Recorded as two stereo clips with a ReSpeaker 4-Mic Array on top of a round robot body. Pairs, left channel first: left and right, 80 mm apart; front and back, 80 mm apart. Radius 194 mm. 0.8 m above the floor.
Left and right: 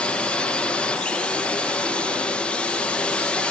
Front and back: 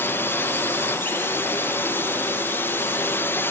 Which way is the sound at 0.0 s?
25° left.